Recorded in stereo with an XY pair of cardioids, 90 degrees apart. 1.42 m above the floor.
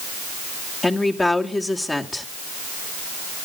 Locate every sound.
0.8 s a woman speaking: 25° left, 2 m